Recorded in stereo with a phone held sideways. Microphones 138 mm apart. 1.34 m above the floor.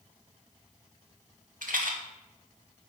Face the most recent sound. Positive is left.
turn(degrees=-80)